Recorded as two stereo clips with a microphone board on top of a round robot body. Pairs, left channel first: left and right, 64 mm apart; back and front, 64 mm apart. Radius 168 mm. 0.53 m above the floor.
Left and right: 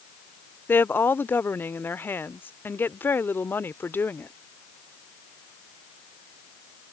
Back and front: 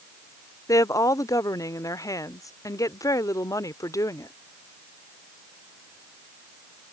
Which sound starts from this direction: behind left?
A woman speaking, at 0.7 s.